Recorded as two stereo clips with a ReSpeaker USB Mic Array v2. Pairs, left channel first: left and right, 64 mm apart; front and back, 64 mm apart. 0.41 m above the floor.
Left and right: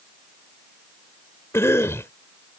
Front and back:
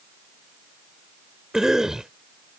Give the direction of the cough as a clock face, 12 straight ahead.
9 o'clock.